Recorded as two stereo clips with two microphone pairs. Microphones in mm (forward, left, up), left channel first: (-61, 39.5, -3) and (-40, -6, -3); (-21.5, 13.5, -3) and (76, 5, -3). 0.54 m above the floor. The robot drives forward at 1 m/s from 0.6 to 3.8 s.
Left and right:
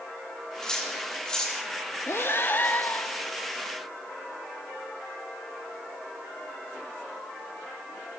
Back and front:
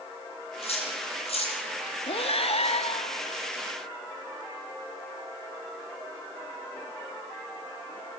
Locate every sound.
0.6 s cutlery clinking: 170° right, 9.5 m
2.1 s breathing: 150° left, 0.7 m; by 3.5 s 170° left, 2 m